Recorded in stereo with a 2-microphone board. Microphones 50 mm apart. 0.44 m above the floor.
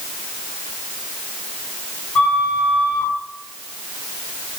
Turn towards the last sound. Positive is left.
turn(degrees=25)  # may be behind; listen again after turning